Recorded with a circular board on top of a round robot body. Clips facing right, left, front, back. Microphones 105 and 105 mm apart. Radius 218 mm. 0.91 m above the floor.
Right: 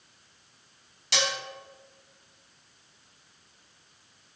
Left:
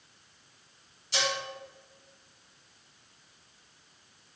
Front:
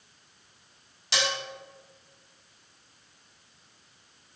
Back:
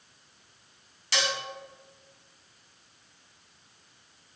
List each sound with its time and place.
1.1 s dishes clattering: 70° right, 1.4 m